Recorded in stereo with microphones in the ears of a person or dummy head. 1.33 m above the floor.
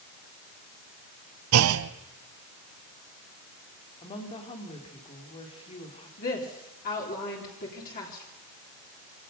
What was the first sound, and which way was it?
A clunk, 80° right.